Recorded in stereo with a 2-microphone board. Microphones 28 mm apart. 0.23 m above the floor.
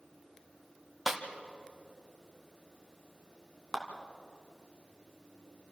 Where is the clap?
5° right (ahead or behind), 2.5 m.